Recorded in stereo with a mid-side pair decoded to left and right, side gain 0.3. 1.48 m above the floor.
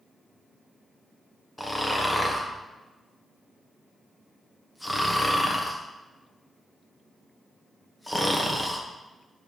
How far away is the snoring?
About 1.3 m.